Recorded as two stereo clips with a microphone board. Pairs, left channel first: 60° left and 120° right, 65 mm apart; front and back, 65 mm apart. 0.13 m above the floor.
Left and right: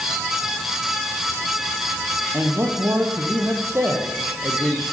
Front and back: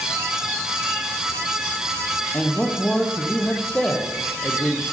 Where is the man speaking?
70° right, 5 m.